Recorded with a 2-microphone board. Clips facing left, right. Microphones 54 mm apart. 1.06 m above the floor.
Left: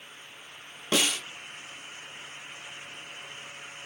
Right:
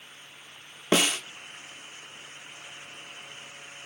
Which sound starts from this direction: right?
A snare drum, at 0.9 s.